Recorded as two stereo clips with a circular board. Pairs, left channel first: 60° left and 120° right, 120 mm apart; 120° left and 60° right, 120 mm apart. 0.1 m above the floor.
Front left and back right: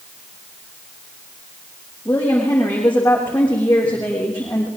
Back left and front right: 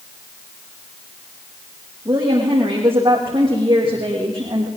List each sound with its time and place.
2.0 s a woman speaking: 15° right, 5 m